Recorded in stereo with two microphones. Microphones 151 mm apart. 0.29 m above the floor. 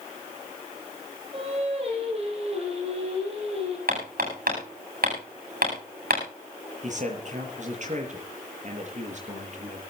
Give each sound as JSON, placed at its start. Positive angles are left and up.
{"t": 1.3, "sound": "singing", "side_deg": -40, "distance_m": 10.0}
{"t": 3.9, "sound": "hammering", "side_deg": -80, "distance_m": 9.0}
{"t": 6.8, "sound": "a man speaking", "side_deg": -55, "distance_m": 6.0}